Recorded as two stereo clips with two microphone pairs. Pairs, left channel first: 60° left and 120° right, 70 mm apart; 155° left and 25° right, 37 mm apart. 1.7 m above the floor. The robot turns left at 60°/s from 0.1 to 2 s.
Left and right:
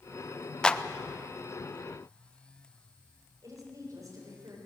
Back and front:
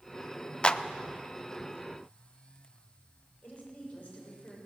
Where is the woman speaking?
155° right, 7 m.